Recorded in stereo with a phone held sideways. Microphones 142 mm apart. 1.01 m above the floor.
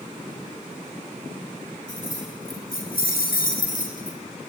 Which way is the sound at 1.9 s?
65° left (ahead or behind).